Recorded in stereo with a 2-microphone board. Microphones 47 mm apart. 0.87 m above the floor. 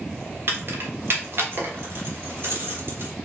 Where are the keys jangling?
50° right (ahead or behind), 1.2 m.